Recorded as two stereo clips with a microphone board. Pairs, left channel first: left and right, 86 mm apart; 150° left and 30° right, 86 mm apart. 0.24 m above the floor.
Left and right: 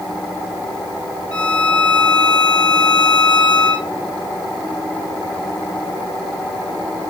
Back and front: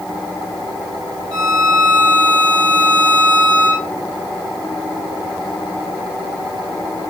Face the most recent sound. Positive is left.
turn(degrees=10)